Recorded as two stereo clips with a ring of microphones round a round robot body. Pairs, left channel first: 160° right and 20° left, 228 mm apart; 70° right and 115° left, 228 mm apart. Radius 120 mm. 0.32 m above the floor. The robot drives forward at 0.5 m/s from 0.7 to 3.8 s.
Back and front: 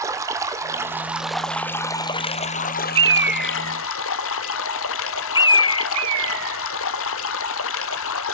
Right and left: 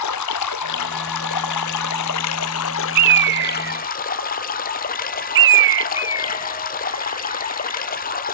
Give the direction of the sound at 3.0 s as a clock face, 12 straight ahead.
9 o'clock.